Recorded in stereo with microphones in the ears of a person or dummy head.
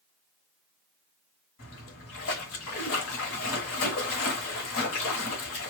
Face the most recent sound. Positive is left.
turn(degrees=50)  # may be behind; listen again after turning